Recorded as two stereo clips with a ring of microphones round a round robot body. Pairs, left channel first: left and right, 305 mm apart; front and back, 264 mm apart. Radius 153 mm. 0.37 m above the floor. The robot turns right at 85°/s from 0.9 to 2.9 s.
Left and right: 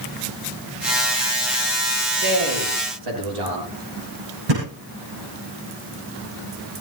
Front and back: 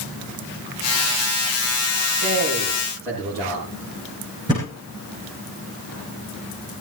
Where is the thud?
105° right, 8 m.